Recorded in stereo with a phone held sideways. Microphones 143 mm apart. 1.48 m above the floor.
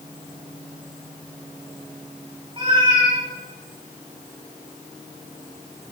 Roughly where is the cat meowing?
Right.